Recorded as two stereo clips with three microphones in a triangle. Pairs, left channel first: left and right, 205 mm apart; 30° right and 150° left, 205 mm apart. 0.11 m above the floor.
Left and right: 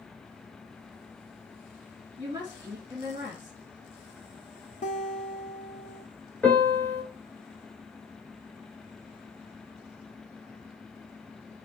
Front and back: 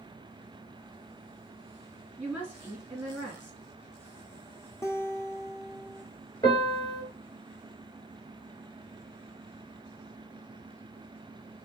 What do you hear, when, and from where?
2.2 s a woman speaking: 140° right, 1.4 m
4.8 s a guitar: 45° left, 0.8 m
6.4 s a piano: 20° left, 1.7 m